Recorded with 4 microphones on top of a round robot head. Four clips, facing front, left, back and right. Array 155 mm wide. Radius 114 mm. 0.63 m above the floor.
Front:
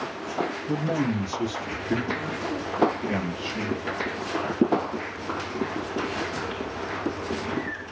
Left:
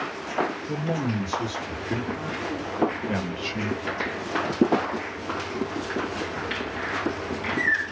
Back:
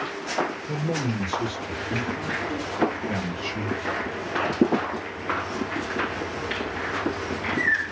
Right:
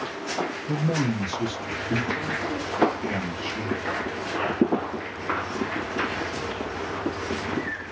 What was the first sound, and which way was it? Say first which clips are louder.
A man speaking: right 2 dB, front 2 dB; 35° right.